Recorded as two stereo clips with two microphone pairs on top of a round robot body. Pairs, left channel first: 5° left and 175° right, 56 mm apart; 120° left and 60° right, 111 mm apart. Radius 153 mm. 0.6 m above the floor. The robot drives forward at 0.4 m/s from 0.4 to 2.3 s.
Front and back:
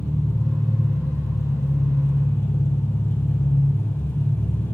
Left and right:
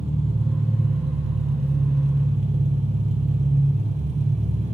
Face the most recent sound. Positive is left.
turn(degrees=-40)